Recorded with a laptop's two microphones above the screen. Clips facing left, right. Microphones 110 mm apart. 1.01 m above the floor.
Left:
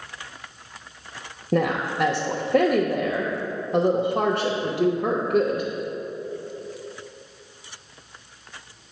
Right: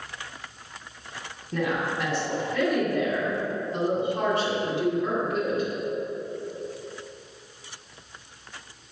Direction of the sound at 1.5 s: 60° left (ahead or behind).